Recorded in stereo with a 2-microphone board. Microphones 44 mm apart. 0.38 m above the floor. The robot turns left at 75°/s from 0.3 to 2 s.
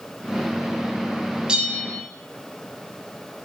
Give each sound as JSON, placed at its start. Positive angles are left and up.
{"t": 1.5, "sound": "a bell", "azimuth_deg": -20, "distance_m": 0.6}